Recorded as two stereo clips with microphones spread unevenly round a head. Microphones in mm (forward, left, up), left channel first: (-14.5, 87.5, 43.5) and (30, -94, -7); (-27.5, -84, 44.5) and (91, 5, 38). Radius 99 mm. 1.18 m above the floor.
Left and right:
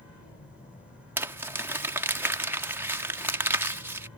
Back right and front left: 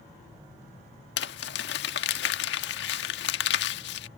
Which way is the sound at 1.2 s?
160° right.